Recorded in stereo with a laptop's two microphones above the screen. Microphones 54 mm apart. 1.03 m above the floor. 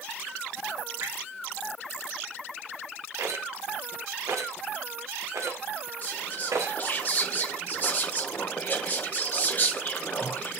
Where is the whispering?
35° left (ahead or behind), 0.7 m.